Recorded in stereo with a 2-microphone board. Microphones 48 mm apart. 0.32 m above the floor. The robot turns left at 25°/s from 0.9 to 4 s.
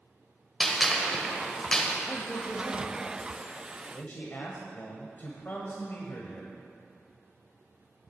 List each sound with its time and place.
0.6 s a gunshot: 5° left (ahead or behind), 1.3 m; by 2.0 s 20° left (ahead or behind), 1.3 m
2.1 s a man speaking: 130° left, 1.2 m; by 6.5 s 80° left, 1.2 m